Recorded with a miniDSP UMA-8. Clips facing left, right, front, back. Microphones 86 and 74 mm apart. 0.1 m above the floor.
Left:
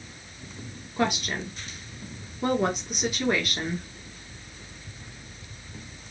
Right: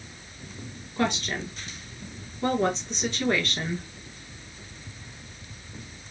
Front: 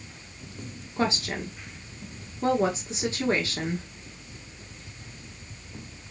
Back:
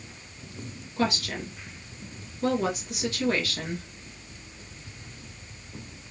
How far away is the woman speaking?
About 1.3 m.